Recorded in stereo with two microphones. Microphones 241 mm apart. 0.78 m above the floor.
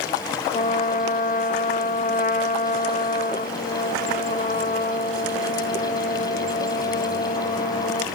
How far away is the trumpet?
About 0.7 m.